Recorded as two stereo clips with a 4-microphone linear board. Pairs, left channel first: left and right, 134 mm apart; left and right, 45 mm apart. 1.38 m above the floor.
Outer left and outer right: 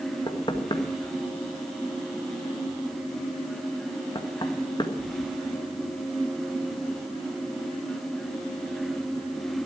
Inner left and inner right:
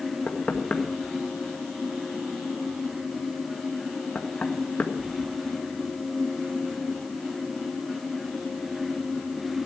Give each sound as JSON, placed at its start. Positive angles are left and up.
{"t": 0.3, "sound": "knocking", "side_deg": 35, "distance_m": 1.4}